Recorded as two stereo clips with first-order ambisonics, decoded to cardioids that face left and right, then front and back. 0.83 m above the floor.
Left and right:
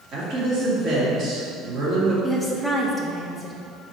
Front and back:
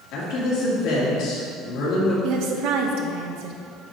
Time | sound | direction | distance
0.1 | a woman speaking | 30° right | 2 m
2.2 | a woman speaking | 175° right | 0.9 m